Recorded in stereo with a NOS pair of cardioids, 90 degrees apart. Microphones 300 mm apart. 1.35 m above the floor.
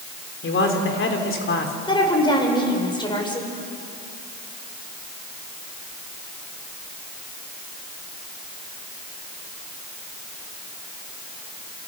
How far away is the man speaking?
About 3.5 m.